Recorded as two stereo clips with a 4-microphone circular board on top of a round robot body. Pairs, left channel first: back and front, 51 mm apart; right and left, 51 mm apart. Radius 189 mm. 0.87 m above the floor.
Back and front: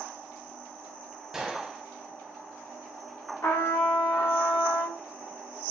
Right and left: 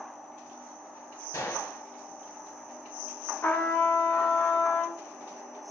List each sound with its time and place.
1.3 s a gunshot: 80° right, 0.9 m
3.4 s a trumpet: 145° right, 0.7 m